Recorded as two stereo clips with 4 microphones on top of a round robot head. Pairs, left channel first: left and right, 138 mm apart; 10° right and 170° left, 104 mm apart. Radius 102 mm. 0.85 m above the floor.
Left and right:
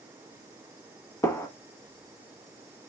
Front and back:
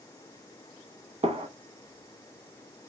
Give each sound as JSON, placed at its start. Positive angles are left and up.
{"t": 1.2, "sound": "a gunshot", "azimuth_deg": 150, "distance_m": 1.2}